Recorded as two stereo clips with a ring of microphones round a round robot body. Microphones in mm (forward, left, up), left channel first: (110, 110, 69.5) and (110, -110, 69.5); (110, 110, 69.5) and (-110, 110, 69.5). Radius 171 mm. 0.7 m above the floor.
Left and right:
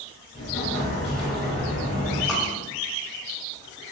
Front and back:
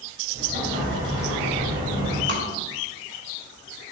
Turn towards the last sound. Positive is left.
turn(degrees=180)